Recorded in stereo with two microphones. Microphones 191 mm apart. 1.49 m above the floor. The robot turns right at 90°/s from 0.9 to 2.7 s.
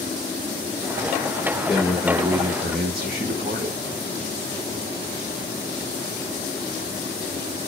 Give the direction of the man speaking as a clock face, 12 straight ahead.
7 o'clock.